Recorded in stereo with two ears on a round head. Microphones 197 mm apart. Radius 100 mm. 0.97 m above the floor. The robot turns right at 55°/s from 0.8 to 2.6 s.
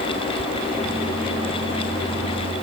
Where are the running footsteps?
No running footsteps in this recording.